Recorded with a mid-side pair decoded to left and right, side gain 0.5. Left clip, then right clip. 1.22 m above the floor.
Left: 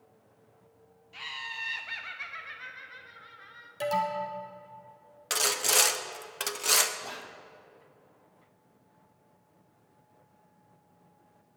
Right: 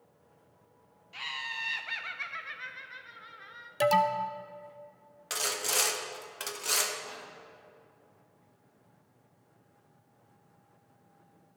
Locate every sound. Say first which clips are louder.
1.1 s laughter: right 1 dB; 20° right, 0.5 m
3.8 s an alarm: right 4 dB; 50° right, 0.8 m
5.3 s sawing: left 5 dB; 30° left, 0.7 m
7.0 s whispering: left 3 dB; 55° left, 1.0 m